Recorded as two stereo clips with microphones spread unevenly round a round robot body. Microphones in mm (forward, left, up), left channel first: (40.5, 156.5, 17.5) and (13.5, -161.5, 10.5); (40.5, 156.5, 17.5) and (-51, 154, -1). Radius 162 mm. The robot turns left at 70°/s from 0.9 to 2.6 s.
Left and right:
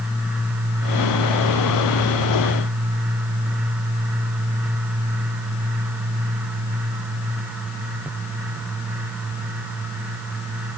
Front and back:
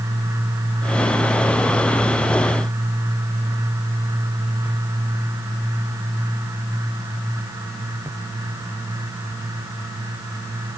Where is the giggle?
I don't hear a giggle.